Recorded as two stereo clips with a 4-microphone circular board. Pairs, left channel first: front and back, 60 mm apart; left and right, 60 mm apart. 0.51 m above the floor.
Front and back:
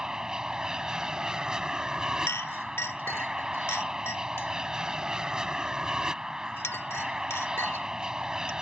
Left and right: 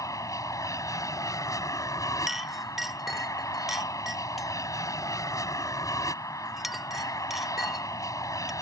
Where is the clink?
10° right.